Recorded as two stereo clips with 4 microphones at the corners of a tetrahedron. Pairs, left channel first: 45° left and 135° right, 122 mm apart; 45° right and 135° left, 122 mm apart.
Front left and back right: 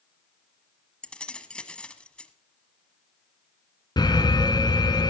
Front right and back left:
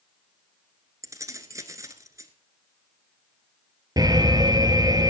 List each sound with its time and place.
1.0 s keys jangling: 120° left, 1.1 m
4.0 s an alarm: 90° left, 1.6 m